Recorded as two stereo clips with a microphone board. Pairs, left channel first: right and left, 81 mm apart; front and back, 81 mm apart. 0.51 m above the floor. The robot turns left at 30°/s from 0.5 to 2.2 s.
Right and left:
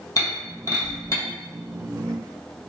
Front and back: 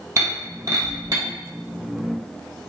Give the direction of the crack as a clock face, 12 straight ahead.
I don't hear a crack.